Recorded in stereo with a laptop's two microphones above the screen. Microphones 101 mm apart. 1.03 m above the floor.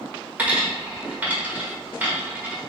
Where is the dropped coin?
20° right (ahead or behind), 1.3 m.